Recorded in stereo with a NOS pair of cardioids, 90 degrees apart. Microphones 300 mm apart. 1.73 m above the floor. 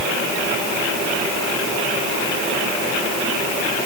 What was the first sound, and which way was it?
Only background noise.